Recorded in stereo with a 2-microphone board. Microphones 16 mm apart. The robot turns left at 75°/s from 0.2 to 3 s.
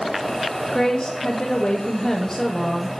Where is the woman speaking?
140° left, 1.1 m; by 2.9 s 25° right, 1.1 m.